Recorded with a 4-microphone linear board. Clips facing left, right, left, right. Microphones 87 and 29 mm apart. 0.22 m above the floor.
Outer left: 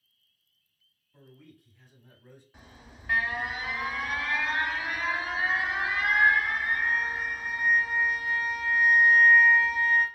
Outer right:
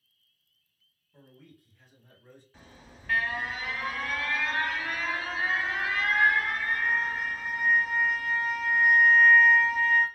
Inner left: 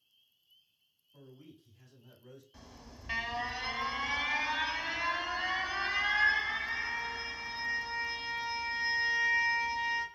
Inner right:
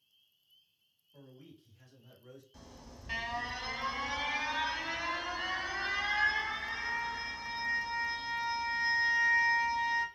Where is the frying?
No frying in this recording.